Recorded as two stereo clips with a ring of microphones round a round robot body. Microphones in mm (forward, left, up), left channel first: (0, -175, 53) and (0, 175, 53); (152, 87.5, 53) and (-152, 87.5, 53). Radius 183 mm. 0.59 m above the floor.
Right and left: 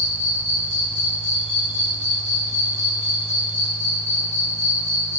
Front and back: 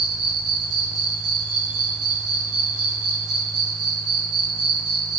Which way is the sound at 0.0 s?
155° left.